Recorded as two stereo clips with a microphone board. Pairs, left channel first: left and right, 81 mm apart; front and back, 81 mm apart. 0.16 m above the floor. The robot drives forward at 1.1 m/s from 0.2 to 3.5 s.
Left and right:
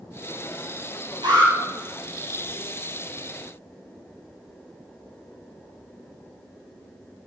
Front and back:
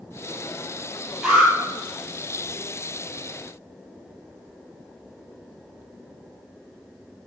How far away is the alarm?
About 5 m.